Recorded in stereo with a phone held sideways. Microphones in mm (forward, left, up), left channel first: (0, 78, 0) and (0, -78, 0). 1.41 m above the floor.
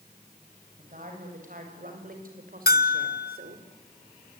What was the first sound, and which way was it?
A woman speaking, 55° right (ahead or behind).